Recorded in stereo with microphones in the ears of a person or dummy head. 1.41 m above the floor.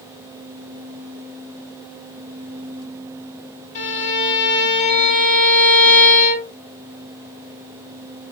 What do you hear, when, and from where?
3.8 s a violin: 40° left (ahead or behind), 1.5 m